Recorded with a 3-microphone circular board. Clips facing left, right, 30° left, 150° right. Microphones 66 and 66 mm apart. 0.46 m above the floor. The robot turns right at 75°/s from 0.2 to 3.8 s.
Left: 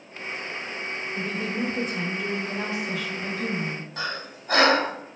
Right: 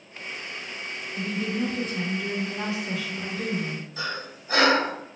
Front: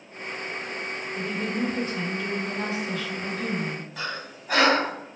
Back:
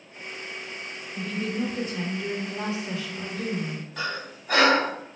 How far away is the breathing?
About 0.8 m.